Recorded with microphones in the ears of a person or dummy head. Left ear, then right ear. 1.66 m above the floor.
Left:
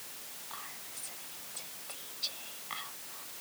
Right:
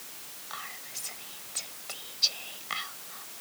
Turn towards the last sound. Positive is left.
turn(degrees=-25)  # may be behind; listen again after turning